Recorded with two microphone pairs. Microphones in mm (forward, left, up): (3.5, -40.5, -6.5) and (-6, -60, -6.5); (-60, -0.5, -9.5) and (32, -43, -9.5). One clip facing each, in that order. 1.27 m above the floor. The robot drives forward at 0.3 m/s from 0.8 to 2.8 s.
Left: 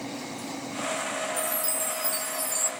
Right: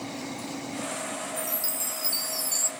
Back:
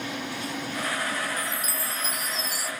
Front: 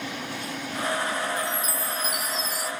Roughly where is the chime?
Right.